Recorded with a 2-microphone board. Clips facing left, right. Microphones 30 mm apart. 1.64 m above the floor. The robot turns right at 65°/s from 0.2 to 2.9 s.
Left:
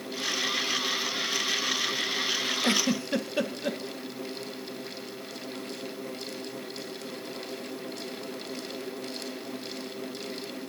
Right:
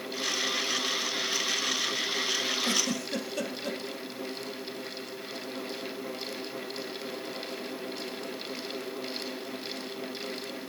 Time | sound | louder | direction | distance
2.6 | a giggle | left 3 dB | 50° left (ahead or behind) | 1.3 m